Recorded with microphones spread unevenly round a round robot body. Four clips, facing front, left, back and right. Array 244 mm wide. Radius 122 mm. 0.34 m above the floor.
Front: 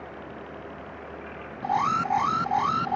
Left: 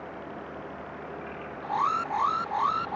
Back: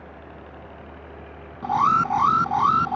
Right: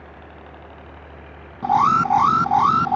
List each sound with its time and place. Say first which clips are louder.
0.0 s a helicopter: left 3 dB, front 3 dB; 105° right
1.6 s an alarm: right 11 dB, back 5 dB; 95° right